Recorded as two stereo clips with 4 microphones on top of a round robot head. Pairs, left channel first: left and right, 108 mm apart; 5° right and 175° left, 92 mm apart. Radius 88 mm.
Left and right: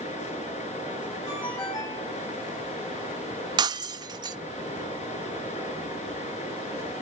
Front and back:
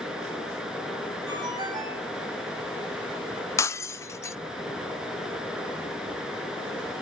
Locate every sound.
0.0 s running water: 90° left, 6 m
1.3 s a ringtone: 135° left, 9.5 m
3.6 s breaking glass: 55° right, 0.7 m